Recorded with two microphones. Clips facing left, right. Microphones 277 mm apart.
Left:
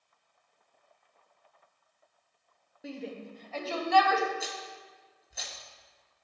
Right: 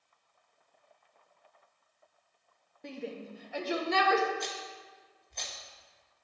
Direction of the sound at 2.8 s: 5° left (ahead or behind).